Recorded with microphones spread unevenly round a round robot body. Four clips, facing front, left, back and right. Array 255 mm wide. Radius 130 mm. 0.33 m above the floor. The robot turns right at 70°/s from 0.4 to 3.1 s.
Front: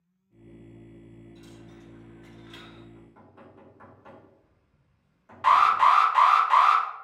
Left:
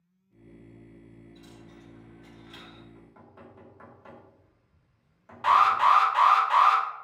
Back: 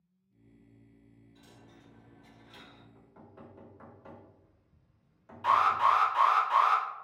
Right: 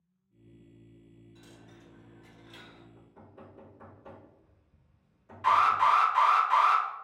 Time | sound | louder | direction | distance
1.4 | a dropped coin | left 4 dB, front 9 dB | 75° right | 1.3 m
3.0 | knocking | left 1 dB, front 2 dB | 75° left | 1.7 m
5.4 | an alarm | left 3 dB, front 6 dB | 35° left | 1.0 m